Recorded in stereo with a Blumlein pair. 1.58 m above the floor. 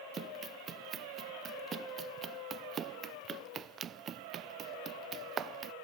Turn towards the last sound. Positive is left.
turn(degrees=-25)